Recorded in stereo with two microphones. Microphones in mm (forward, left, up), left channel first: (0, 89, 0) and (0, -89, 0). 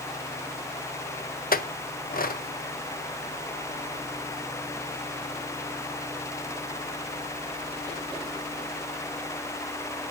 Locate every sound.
1.5 s a clink: 55° left (ahead or behind), 0.7 m